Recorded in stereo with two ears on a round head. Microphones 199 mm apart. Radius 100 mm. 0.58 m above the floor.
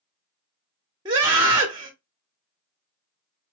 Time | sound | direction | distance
1.1 | a scream | 20° right (ahead or behind) | 0.9 m